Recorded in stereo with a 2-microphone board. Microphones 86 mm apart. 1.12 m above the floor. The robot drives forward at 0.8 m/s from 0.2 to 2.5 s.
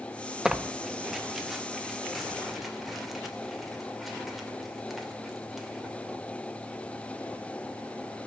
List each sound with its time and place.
0.5 s tearing paper: 5° right (ahead or behind), 0.7 m; by 6.0 s centre (ahead or behind), 2.5 m